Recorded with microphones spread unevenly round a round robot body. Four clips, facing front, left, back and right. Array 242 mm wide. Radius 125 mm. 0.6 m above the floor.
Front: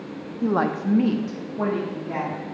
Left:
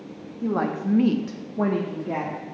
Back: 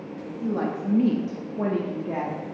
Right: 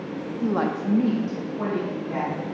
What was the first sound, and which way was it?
A woman speaking, 20° right.